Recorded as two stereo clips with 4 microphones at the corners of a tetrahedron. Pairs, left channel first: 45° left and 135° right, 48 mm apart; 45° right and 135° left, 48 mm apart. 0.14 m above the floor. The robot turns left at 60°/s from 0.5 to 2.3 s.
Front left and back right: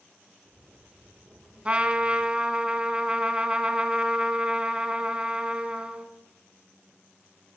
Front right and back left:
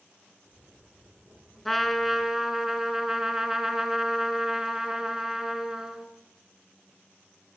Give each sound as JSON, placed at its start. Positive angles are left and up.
{"t": 1.6, "sound": "a trumpet", "azimuth_deg": -125, "distance_m": 1.4}